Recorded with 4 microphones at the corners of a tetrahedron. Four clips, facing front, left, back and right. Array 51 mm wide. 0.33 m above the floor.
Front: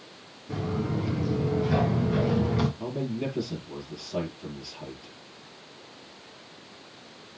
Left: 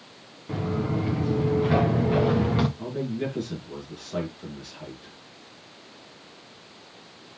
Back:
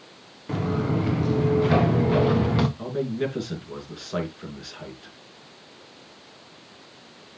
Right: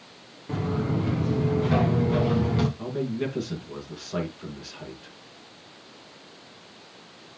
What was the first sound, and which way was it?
Footsteps, 170° left.